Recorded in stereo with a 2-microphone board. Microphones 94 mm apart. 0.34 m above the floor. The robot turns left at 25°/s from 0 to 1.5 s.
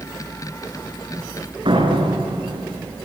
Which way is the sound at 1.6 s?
65° right (ahead or behind).